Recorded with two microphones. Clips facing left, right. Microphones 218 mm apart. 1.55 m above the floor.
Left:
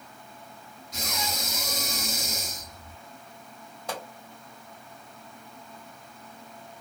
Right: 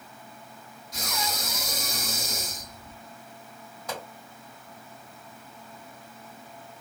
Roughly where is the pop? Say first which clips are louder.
Left 1 dB; left.